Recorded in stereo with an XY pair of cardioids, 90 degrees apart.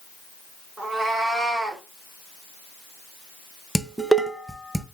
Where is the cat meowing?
40° right, 1.8 m.